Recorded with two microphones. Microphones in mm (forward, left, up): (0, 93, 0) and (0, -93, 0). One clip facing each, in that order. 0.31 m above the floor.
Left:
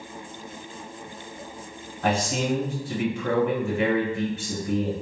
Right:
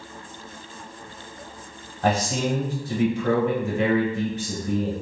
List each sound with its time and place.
2.0 s a man speaking: 35° right (ahead or behind), 1.2 m